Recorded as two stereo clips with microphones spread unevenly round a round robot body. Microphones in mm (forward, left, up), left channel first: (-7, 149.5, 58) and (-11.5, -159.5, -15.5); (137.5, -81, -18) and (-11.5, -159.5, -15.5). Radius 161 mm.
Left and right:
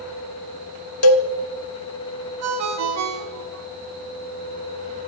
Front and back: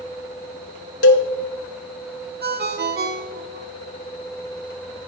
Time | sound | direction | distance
1.0 | a cowbell | 45° left | 0.8 m
2.4 | a ringtone | 130° right | 1.1 m